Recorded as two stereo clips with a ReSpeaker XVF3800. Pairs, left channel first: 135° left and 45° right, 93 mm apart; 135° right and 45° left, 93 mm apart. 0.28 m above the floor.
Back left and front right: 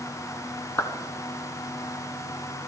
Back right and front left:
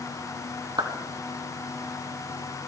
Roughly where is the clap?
Left.